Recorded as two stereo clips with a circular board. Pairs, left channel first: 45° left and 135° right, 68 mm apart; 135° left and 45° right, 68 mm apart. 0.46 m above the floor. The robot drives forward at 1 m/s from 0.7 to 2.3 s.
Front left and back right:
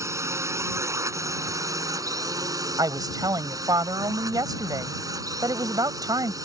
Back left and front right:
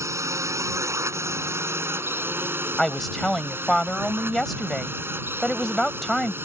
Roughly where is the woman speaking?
Behind right.